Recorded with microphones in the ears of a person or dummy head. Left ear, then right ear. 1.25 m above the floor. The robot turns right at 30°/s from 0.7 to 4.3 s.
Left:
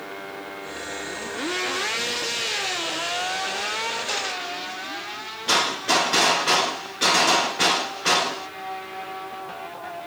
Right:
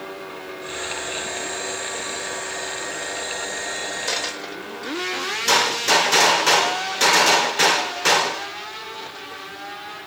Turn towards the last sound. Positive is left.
turn(degrees=-70)  # may be behind; listen again after turning